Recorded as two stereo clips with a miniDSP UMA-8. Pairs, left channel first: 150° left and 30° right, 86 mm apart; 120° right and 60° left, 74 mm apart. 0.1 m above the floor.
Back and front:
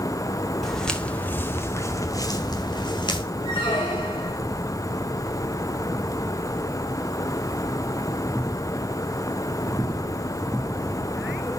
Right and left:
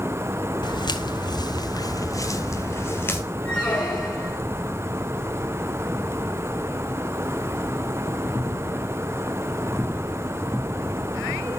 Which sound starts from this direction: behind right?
Footsteps, at 0.6 s.